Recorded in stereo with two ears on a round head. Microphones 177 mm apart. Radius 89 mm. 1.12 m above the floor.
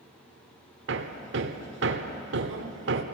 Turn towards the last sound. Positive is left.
turn(degrees=-65)  # may be behind; listen again after turning